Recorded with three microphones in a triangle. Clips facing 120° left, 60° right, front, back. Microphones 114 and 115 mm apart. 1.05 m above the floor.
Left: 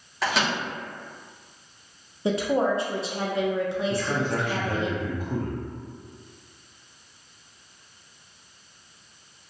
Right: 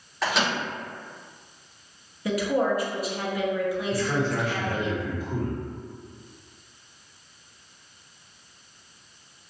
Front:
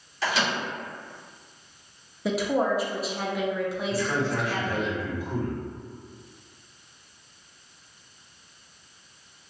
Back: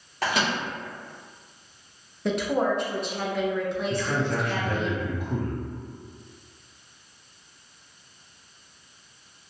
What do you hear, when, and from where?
0.2 s a microwave: 150° right, 1.1 m
2.2 s a woman speaking: 85° left, 0.6 m
3.9 s a man speaking: 155° left, 0.9 m